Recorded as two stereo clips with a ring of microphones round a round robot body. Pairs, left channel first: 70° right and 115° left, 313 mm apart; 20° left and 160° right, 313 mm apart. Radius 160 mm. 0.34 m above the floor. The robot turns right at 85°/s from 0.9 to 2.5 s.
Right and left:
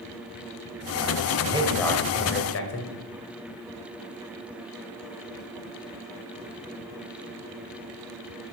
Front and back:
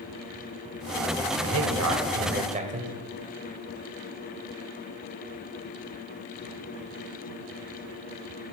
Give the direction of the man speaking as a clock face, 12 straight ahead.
6 o'clock.